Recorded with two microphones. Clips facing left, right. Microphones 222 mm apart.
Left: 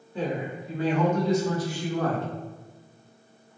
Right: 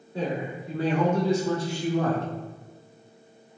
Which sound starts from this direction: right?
A man speaking, at 0.1 s.